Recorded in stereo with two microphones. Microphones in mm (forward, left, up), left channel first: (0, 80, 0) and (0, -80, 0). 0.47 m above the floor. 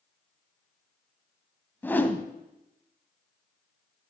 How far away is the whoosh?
About 1.0 m.